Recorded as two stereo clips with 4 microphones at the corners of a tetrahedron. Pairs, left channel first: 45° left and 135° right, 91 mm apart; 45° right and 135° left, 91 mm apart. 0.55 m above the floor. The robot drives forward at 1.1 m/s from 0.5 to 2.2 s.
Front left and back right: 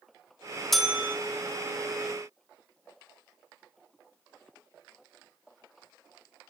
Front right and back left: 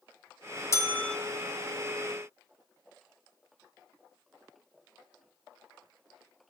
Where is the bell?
40° right, 0.7 m; by 1.2 s 120° right, 0.7 m.